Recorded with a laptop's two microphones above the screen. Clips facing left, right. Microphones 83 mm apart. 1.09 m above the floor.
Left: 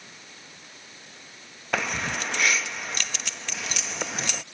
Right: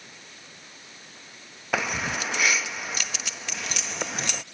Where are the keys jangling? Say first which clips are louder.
Right 1 dB; 5° right (ahead or behind).